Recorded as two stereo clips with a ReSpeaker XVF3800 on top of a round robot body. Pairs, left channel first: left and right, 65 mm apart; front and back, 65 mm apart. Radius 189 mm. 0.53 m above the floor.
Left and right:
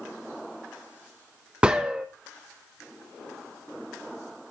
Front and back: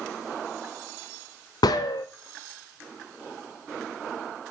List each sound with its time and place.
1.6 s a gunshot: 15° right, 0.6 m